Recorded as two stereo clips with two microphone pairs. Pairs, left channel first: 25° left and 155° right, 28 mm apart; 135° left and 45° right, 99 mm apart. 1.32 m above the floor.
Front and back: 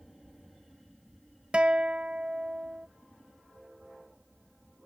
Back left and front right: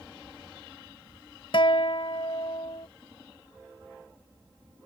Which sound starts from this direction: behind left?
A guitar, at 1.5 s.